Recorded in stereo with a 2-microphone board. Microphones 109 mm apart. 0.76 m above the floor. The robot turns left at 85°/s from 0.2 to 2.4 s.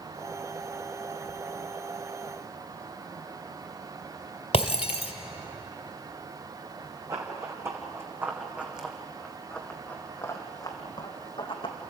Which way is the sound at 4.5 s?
65° left (ahead or behind).